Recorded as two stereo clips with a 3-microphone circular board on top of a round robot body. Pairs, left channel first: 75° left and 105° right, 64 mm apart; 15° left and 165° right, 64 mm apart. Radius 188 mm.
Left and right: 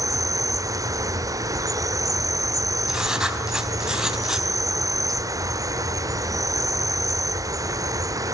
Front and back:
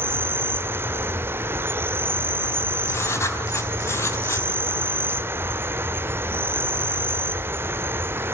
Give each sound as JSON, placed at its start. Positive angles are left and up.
{"t": 0.0, "sound": "an insect", "azimuth_deg": -115, "distance_m": 0.7}
{"t": 2.9, "sound": "writing", "azimuth_deg": -25, "distance_m": 4.0}